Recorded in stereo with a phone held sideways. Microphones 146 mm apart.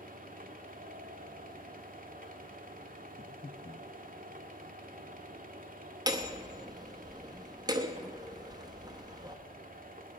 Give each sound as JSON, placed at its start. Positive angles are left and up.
{"t": 0.0, "sound": "a fan", "side_deg": -70, "distance_m": 1.0}
{"t": 3.2, "sound": "breathing", "side_deg": 45, "distance_m": 0.6}
{"t": 6.1, "sound": "hammering", "side_deg": -30, "distance_m": 0.9}